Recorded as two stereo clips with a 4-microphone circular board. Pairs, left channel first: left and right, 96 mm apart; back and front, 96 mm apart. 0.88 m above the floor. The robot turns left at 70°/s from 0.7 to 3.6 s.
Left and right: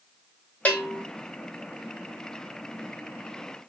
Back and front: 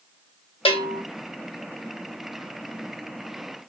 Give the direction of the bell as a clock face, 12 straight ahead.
7 o'clock.